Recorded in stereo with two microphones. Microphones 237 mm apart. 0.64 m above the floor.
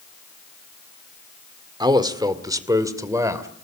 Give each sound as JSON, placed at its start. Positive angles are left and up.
{"t": 1.8, "sound": "a man speaking", "side_deg": -15, "distance_m": 1.7}